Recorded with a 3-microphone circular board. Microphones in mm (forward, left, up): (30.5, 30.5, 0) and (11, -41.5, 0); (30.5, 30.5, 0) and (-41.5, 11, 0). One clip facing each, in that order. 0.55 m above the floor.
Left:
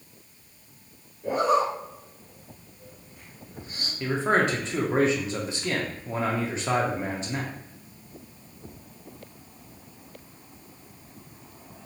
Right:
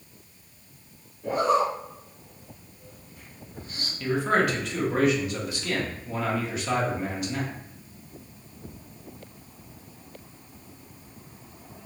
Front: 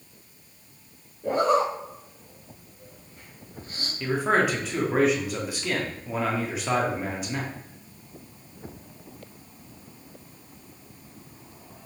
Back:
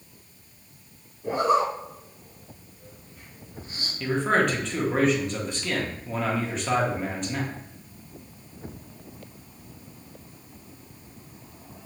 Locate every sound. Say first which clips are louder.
1.2 s a zipper: even, even; straight ahead, 1.5 m
4.0 s a man speaking: even, even; 90° left, 0.6 m